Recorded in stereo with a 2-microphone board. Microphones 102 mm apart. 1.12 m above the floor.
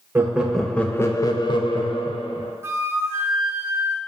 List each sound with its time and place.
0.1 s laughter: 15° right (ahead or behind), 0.6 m; by 2.5 s 65° left (ahead or behind), 1.0 m
2.6 s a flute: 25° right (ahead or behind), 0.5 m